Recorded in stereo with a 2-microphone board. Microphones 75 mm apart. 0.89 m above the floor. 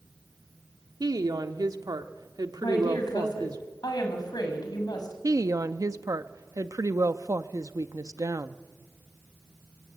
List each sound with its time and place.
1.0 s a woman speaking: 65° right (ahead or behind), 1.6 m
2.6 s a woman speaking: 65° left (ahead or behind), 7 m
5.2 s a woman speaking: 50° right (ahead or behind), 1.0 m